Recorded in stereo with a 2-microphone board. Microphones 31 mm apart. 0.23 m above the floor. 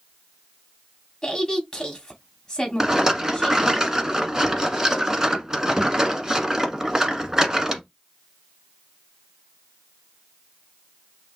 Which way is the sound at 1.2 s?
20° left (ahead or behind).